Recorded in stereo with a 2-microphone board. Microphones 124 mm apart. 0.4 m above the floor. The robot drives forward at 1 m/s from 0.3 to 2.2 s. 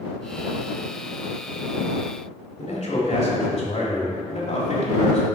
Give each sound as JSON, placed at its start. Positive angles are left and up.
{"t": 2.6, "sound": "a man speaking", "side_deg": 60, "distance_m": 1.7}